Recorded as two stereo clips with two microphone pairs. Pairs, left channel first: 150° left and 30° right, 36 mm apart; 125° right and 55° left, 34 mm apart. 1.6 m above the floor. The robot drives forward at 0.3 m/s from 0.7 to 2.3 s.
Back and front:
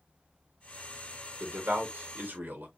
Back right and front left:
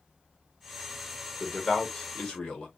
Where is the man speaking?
55° right, 1.2 m; by 2.7 s 65° right, 1.1 m.